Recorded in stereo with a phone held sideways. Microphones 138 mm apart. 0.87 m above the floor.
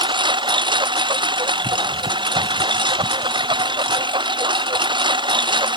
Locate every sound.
0.0 s a lawn mower: 35° right (ahead or behind)